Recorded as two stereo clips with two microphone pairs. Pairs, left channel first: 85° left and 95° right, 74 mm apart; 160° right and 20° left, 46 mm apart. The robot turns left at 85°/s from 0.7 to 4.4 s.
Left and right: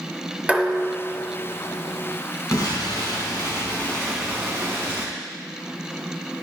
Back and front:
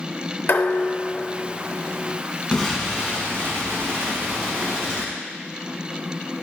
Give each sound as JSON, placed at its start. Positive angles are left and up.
{"t": 0.5, "sound": "dishes clattering", "azimuth_deg": -175, "distance_m": 0.9}
{"t": 2.5, "sound": "an explosion", "azimuth_deg": 125, "distance_m": 1.9}